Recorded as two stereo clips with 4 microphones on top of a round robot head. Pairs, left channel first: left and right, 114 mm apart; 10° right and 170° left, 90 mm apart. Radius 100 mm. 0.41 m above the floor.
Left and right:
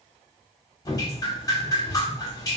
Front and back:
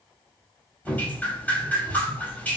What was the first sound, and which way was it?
Dripping, 50° left.